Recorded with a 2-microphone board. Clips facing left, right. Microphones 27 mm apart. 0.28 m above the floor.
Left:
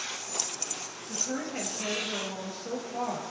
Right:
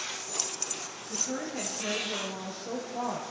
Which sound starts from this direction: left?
A woman speaking, at 1.1 s.